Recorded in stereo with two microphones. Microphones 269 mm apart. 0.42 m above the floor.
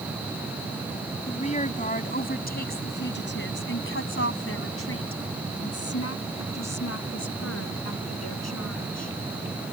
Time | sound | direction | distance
1.3 | a woman speaking | 25° left (ahead or behind) | ?